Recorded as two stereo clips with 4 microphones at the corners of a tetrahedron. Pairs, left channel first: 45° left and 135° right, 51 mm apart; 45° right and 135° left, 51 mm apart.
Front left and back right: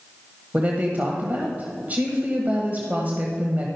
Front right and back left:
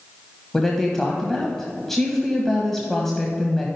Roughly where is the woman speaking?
Behind right.